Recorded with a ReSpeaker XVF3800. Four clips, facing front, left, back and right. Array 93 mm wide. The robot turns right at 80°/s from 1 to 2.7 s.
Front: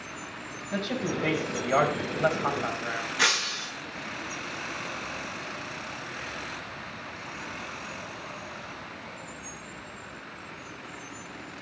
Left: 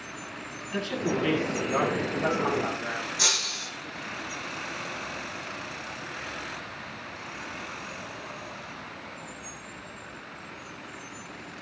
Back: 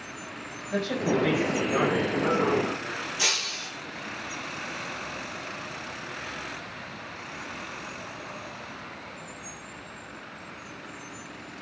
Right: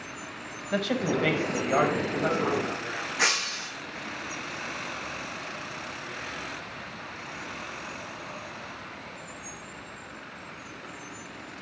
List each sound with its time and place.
0.7 s a man speaking: 95° right, 5 m; by 3.1 s 40° left, 5 m
3.2 s breaking glass: 30° right, 5 m